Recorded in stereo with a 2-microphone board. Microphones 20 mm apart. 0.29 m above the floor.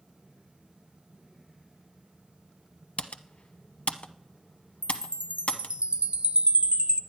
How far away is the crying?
No crying in this recording.